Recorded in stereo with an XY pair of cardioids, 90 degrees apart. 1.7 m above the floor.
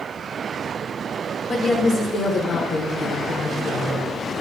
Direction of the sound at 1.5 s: 60° left.